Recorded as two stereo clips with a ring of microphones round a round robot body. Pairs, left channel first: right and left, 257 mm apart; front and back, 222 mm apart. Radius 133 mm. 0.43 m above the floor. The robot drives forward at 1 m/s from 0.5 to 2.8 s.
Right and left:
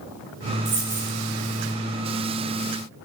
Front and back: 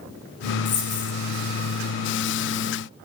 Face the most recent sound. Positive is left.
turn(degrees=55)